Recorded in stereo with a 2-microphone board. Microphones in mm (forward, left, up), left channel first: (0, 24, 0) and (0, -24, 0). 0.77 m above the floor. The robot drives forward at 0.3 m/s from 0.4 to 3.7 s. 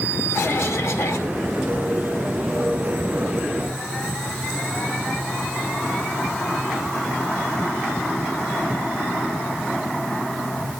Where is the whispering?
No whispering in this recording.